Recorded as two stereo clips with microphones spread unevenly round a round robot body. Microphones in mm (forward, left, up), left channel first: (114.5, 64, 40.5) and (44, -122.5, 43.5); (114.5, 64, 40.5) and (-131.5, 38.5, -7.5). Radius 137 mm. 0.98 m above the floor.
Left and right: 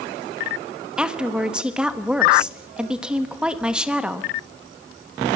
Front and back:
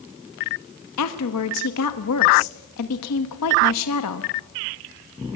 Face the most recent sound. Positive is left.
turn(degrees=-25)